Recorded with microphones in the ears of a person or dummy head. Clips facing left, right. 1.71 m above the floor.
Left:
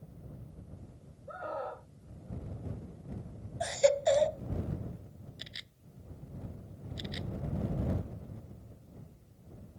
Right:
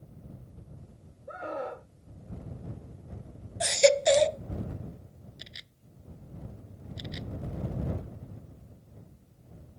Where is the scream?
30° right (ahead or behind).